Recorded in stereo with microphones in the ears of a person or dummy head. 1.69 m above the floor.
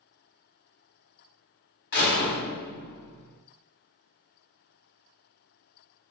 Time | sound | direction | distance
1.9 | a door slam | 50° left (ahead or behind) | 0.9 m